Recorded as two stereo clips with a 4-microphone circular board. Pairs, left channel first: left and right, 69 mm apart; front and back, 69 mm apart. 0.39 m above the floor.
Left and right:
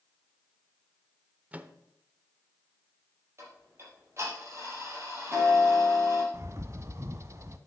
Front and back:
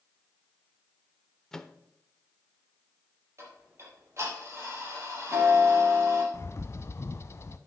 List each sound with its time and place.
1.5 s a microwave: 75° right, 0.6 m
3.4 s ticking: 140° right, 4.5 m
6.3 s a bird: 45° right, 0.6 m